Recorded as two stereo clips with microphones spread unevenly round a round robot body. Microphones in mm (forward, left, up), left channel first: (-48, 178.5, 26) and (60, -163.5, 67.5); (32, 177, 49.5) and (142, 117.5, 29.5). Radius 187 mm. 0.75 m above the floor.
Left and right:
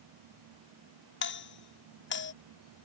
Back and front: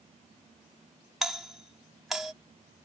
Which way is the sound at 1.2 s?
55° left.